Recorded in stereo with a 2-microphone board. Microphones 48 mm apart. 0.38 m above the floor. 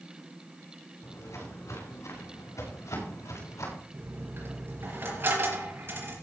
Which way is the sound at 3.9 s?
45° right (ahead or behind).